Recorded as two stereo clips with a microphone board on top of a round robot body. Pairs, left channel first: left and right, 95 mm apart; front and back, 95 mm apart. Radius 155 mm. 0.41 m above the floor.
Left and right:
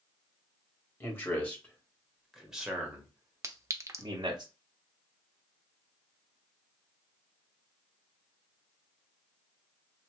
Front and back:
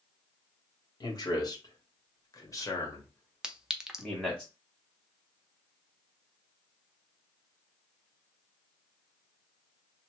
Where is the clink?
105° right, 0.7 m.